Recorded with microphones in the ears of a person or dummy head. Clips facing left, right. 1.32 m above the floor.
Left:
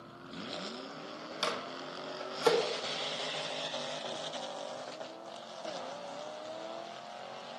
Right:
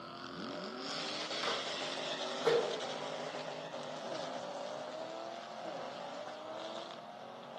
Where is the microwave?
80° left, 1.5 m.